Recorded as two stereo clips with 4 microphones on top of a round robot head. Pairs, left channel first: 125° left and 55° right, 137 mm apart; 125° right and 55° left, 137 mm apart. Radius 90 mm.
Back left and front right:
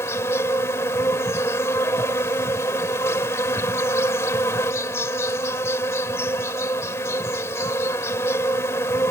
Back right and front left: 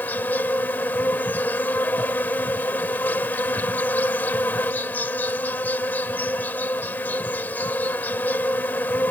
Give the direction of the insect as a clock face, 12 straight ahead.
6 o'clock.